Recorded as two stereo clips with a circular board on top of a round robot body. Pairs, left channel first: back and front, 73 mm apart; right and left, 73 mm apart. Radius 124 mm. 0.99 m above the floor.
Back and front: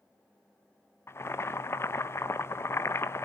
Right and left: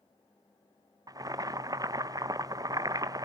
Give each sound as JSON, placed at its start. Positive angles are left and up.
{"t": 1.1, "sound": "boiling", "azimuth_deg": 125, "distance_m": 1.0}